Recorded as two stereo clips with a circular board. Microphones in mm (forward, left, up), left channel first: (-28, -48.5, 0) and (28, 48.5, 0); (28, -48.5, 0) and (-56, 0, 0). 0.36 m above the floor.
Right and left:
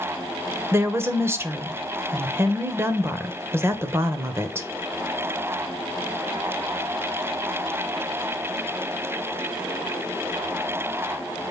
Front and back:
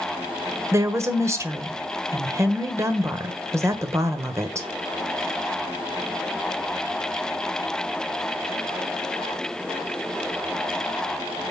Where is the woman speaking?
115° left, 1.2 m.